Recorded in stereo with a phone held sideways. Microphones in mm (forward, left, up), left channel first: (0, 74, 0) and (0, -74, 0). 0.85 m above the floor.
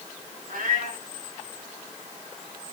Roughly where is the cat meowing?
Right.